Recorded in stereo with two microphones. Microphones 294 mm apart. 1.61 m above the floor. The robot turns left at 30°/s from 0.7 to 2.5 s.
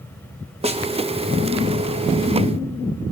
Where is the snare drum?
20° right (ahead or behind), 1.1 m; by 0.8 s 15° right (ahead or behind), 1.1 m.